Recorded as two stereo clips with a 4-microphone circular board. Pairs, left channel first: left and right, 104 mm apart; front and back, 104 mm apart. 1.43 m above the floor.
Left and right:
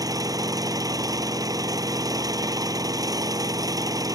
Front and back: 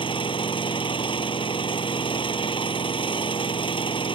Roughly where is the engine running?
Ahead right.